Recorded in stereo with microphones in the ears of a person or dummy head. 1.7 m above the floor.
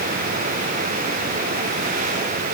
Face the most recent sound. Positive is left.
No sound to turn to.